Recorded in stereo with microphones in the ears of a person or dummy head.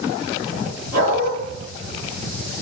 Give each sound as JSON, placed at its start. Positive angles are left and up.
{"t": 0.9, "sound": "a dog barking", "side_deg": -70, "distance_m": 5.0}